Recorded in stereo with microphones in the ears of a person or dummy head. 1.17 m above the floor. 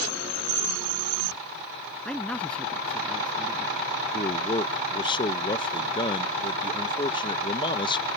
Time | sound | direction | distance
2.0 | a man speaking | 5° left (ahead or behind) | ?
4.1 | a man speaking | 25° left (ahead or behind) | ?